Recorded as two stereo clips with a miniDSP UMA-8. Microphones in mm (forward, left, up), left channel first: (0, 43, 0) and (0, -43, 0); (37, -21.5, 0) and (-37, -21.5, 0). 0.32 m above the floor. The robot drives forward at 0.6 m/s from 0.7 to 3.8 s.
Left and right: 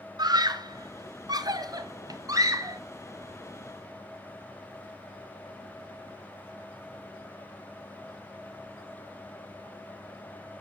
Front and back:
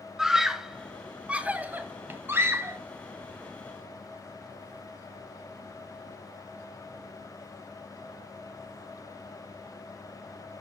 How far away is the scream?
About 2 m.